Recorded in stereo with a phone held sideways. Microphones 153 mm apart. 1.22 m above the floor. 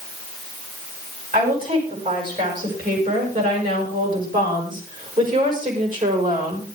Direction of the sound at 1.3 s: 65° right (ahead or behind).